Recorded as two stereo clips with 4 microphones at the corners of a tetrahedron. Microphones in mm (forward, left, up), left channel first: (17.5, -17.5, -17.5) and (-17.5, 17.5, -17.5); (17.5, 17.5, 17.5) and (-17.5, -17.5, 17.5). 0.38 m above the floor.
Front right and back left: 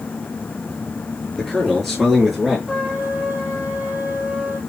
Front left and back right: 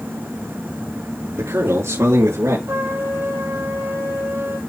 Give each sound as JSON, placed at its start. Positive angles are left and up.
{"t": 1.4, "sound": "a man speaking", "azimuth_deg": -125, "distance_m": 6.0}
{"t": 2.7, "sound": "a trumpet", "azimuth_deg": -145, "distance_m": 7.0}